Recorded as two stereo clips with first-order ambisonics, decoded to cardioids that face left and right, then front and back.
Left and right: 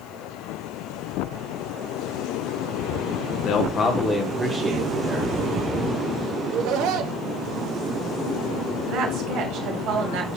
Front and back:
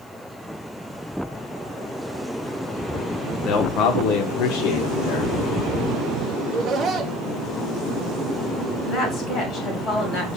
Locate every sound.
3.5 s a man speaking: 50° left, 1.2 m; by 5.4 s 35° right, 2 m
6.4 s laughter: 110° right, 1.4 m
8.9 s a woman speaking: 55° right, 2.5 m